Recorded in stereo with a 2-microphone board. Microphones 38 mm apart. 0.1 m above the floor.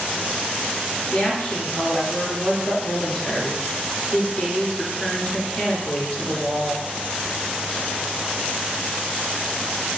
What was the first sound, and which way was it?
A woman speaking, 30° left (ahead or behind).